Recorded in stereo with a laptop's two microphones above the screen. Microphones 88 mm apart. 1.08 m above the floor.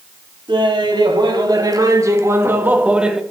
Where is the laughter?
60° right (ahead or behind), 2 m; by 3.2 s 5° right (ahead or behind), 1.4 m.